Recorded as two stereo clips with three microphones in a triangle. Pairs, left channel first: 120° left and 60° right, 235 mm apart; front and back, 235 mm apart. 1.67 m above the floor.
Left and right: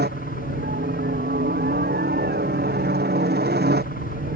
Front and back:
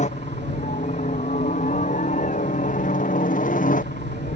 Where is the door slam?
No door slam in this recording.